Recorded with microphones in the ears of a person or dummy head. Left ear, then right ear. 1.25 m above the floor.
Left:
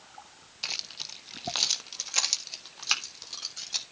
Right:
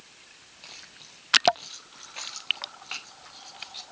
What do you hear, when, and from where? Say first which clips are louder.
0.6 s keys jangling: left 12 dB; 50° left (ahead or behind), 1.0 m; by 3.8 s 80° left, 2.5 m